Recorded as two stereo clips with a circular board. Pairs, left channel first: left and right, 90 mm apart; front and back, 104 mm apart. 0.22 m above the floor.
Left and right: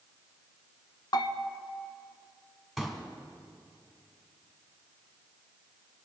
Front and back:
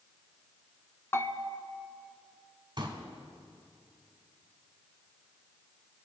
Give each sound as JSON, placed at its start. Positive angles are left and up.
{"t": 1.1, "sound": "a bell", "azimuth_deg": 60, "distance_m": 0.8}
{"t": 2.8, "sound": "a pop", "azimuth_deg": 180, "distance_m": 2.5}